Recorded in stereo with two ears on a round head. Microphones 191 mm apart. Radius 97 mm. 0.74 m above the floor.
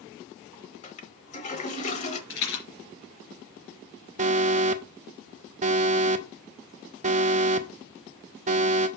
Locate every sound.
0.8 s a toilet flushing: 35° left (ahead or behind), 1.0 m
2.3 s a rattle: 75° left (ahead or behind), 3 m
4.2 s an alarm: 35° right (ahead or behind), 0.7 m